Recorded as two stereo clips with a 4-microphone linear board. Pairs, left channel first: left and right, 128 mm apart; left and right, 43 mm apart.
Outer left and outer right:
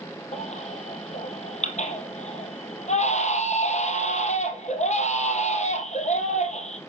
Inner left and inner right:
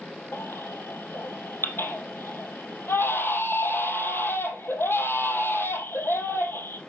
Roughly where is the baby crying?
Left.